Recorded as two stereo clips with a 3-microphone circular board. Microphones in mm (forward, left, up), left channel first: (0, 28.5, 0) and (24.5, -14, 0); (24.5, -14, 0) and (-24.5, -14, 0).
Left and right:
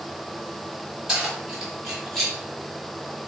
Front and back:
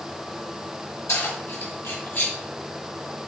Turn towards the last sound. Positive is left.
turn(degrees=30)